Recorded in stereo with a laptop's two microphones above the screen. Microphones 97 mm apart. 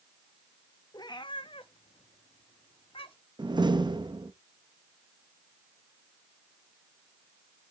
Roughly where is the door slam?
Right.